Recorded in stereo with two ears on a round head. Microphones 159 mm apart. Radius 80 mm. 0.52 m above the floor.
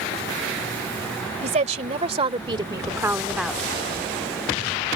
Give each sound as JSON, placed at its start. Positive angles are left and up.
{"t": 1.4, "sound": "a woman speaking", "side_deg": -45}